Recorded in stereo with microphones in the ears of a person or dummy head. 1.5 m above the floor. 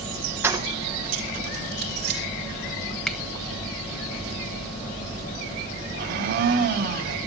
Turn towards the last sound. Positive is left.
turn(degrees=-40)  # may be behind; listen again after turning